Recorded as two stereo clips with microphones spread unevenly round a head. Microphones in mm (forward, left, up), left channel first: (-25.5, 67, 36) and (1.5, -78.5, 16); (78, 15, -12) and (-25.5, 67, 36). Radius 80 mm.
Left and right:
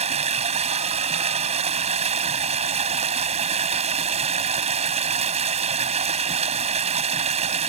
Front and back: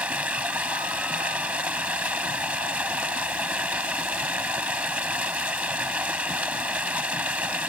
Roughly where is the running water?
Behind right.